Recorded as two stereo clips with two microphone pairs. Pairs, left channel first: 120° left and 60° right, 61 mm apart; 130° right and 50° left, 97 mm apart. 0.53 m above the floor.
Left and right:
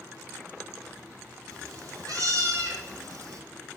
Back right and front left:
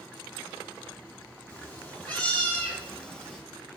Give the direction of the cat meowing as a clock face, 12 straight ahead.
2 o'clock.